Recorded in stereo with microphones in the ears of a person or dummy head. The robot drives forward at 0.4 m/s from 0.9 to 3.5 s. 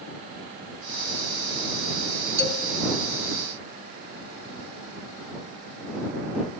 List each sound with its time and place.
2.4 s a man speaking: 60° right (ahead or behind), 1.4 m; by 2.8 s 55° right (ahead or behind), 1.5 m